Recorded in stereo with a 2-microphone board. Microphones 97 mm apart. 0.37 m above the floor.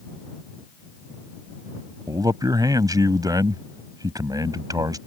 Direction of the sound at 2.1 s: 40° right (ahead or behind).